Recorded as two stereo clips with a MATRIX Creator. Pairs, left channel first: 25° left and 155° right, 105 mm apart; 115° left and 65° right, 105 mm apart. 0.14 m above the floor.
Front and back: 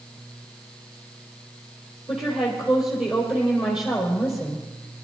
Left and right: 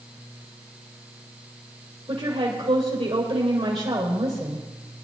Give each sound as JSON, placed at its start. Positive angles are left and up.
{"t": 2.1, "sound": "a woman speaking", "azimuth_deg": -70, "distance_m": 4.0}